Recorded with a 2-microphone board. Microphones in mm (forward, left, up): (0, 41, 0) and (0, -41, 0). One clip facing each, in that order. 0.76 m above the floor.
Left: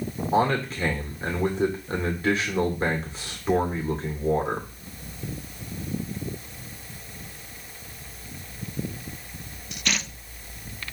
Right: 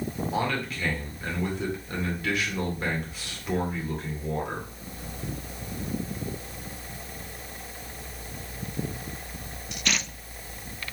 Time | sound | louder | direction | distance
0.3 | a man speaking | left 8 dB | 30° left (ahead or behind) | 2.0 m